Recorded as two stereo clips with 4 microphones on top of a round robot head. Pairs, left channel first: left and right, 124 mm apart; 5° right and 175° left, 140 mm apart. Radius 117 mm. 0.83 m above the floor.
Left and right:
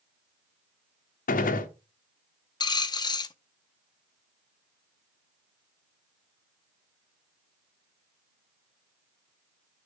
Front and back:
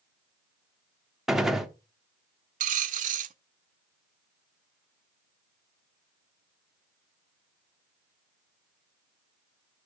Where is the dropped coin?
145° left, 0.5 m.